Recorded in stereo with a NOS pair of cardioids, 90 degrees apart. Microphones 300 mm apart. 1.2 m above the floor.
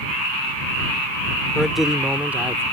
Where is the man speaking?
Straight ahead; by 2.6 s 10° right.